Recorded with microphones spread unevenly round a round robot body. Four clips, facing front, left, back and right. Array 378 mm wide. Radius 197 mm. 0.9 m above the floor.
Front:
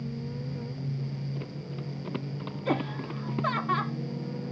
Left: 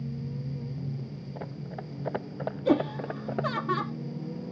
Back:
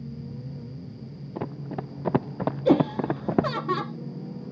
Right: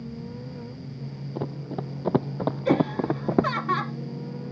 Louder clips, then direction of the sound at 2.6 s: Right 2 dB, back 9 dB; 175° left.